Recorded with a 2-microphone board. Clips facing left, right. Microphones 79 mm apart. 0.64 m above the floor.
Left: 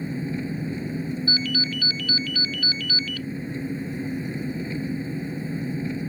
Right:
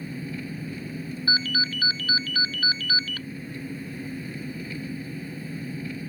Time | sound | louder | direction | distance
0.0 | an engine running | left 5 dB | 25° left (ahead or behind) | ?
1.3 | a ringtone | even | 45° right (ahead or behind) | ?